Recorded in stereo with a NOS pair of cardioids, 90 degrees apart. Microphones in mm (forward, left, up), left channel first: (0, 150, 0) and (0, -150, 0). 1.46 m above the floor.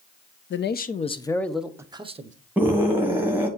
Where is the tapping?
No tapping in this recording.